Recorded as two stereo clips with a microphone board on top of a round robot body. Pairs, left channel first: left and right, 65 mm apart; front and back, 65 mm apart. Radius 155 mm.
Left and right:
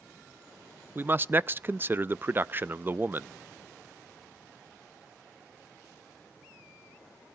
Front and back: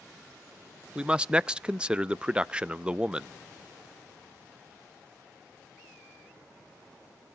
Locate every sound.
0.9 s a man speaking: 115° right, 0.5 m